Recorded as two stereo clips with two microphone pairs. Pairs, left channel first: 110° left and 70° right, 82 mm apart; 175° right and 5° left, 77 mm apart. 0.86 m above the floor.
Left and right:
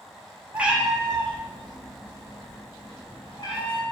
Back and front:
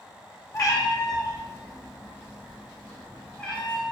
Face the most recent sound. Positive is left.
turn(degrees=105)